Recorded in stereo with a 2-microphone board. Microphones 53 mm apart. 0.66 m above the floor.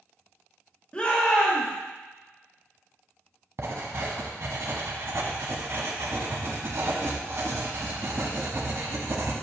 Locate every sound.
0.9 s a shout: 25° left (ahead or behind), 1.3 m
3.6 s writing: 65° right (ahead or behind), 1.2 m